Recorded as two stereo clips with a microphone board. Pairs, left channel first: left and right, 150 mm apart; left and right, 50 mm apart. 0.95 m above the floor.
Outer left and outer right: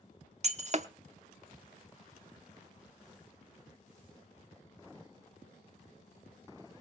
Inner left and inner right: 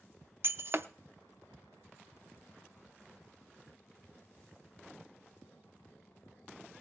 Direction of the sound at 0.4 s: 50° right (ahead or behind).